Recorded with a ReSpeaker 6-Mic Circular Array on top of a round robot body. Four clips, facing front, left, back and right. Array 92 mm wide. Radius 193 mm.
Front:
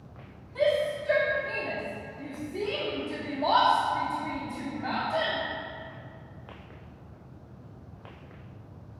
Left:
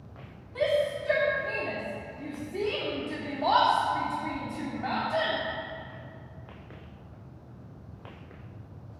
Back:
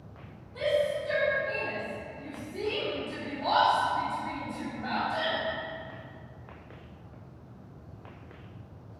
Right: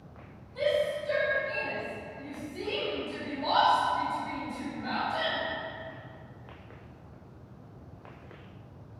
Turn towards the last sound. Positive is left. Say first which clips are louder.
# left 1 dB, front 2 dB
turn(degrees=85)